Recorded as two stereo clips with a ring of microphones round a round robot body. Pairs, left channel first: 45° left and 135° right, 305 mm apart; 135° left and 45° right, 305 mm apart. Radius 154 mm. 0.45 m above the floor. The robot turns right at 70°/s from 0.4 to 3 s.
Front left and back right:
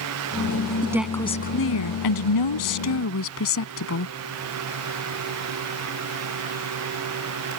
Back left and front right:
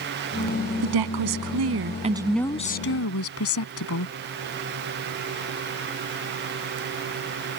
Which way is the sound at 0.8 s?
60° right.